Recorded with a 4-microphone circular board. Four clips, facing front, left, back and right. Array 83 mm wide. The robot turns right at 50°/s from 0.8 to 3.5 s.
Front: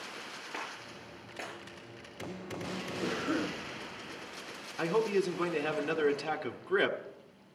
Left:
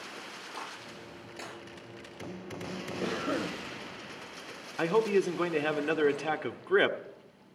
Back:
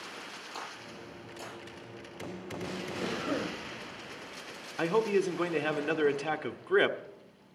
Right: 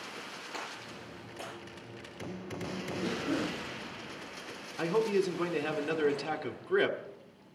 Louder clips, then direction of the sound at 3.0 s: Left 1 dB, front 1 dB; 100° left.